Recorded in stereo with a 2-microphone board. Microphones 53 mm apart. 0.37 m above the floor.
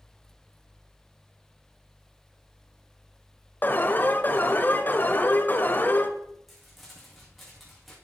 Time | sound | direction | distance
3.6 | an alarm | 35° left (ahead or behind) | 1.1 m
6.5 | crumpling | centre (ahead or behind) | 4.5 m